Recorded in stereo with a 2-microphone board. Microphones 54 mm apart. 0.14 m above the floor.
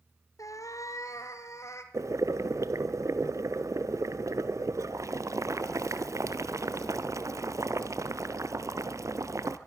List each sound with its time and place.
0.4 s a cat meowing: 75° left (ahead or behind), 1.3 m; by 1.8 s 60° left (ahead or behind), 2.5 m
1.9 s boiling: 75° right (ahead or behind), 1.1 m